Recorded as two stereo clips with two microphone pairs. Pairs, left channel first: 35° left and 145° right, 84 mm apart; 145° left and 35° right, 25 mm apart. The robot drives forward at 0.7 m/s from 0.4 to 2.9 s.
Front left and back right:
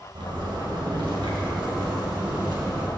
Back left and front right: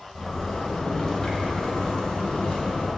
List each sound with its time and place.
0.1 s a zipper: 135° right, 2 m; by 2.9 s 155° right, 3.5 m